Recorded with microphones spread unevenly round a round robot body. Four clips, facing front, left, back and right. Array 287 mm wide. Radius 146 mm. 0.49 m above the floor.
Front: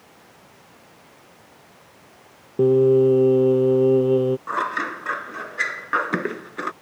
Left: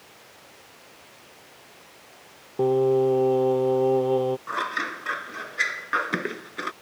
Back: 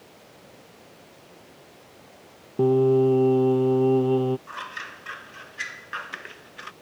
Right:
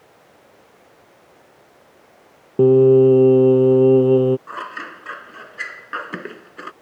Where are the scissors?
10° left.